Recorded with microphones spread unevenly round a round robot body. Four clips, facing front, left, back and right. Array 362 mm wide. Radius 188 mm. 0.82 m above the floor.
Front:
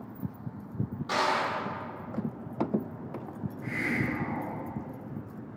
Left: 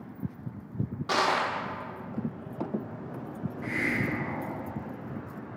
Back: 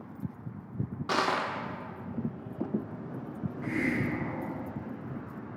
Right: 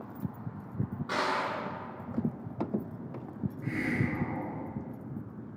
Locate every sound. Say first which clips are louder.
1.1 s crushing: left 5 dB, front 1 dB; 160° left, 0.6 m
3.6 s a hiss: left 1 dB, back 1 dB; 175° right, 1.0 m